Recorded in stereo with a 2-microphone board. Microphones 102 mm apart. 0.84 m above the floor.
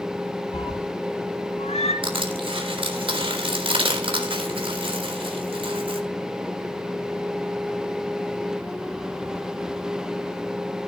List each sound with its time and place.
0.5 s a cat meowing: 70° left (ahead or behind), 3 m; by 1.9 s 80° left, 2.5 m
2.0 s crushing: 60° right (ahead or behind), 3.5 m